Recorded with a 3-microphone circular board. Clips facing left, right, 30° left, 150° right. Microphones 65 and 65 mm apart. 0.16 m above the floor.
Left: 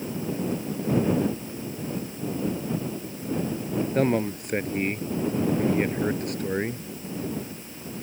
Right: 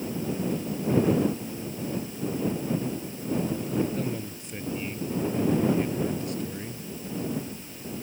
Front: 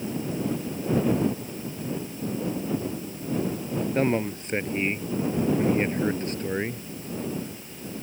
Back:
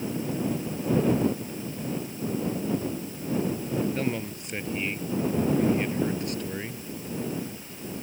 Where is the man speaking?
80° left.